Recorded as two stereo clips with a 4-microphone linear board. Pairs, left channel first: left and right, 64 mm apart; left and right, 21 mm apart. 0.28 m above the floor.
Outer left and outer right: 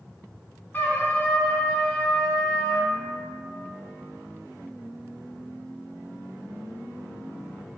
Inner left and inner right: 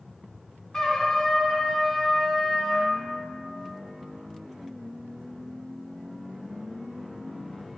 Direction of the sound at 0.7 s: 30° left (ahead or behind).